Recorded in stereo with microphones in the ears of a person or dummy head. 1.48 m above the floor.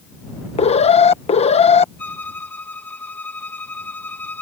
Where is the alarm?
30° left (ahead or behind).